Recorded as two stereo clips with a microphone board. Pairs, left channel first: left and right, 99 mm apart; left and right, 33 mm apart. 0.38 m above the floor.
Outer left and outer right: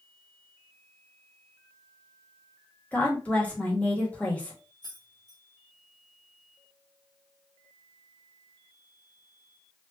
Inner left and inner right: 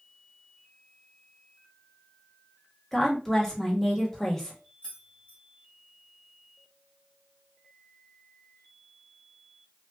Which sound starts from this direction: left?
Keys jangling, at 4.8 s.